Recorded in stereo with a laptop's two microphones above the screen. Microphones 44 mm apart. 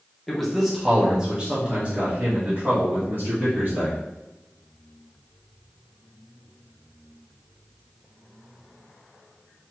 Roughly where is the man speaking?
Centre.